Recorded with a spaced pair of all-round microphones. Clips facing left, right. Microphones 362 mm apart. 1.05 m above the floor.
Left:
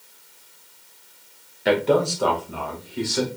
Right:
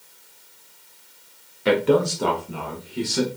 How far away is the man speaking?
About 0.6 m.